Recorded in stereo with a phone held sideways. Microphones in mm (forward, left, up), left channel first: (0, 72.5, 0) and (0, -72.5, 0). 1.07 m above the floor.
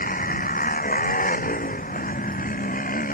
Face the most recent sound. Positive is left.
turn(degrees=70)  # may be behind; listen again after turning